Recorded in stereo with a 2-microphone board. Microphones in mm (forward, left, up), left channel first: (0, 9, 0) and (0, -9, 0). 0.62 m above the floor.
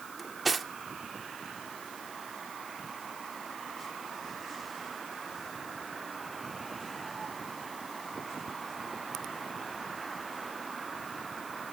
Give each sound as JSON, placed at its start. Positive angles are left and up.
{"t": 0.2, "sound": "cutlery clinking", "side_deg": -5, "distance_m": 0.7}